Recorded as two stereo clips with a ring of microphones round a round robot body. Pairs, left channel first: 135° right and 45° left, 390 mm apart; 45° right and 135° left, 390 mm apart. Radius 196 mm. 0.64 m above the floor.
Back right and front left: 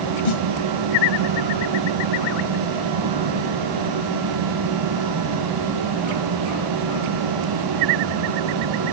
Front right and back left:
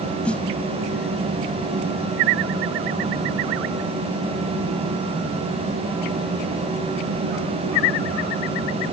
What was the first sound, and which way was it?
A snare drum, 130° right.